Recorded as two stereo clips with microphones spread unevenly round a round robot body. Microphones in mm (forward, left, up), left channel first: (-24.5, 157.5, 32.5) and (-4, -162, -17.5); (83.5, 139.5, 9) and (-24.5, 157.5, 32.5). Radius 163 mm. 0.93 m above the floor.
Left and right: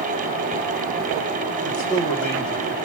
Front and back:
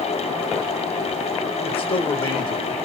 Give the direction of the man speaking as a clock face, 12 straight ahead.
12 o'clock.